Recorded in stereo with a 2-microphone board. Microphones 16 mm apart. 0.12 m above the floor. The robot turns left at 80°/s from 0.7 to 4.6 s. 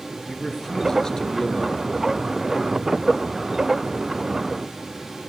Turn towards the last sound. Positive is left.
turn(degrees=-160)